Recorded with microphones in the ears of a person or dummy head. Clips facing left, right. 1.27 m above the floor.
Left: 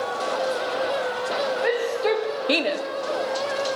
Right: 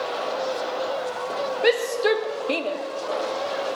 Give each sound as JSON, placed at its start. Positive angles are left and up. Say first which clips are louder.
{"t": 1.6, "sound": "a shout", "louder": "right 4 dB", "side_deg": -45, "distance_m": 0.7}